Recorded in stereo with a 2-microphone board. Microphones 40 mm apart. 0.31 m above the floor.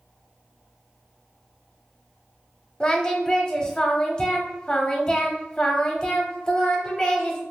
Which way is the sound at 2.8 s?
20° left (ahead or behind).